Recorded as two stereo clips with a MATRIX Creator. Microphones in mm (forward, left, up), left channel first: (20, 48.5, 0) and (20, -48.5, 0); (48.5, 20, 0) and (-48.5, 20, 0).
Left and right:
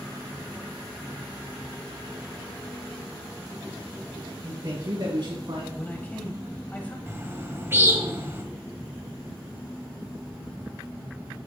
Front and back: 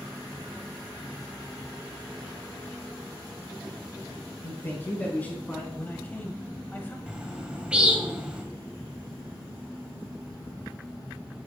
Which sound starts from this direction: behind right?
A bird, at 7.1 s.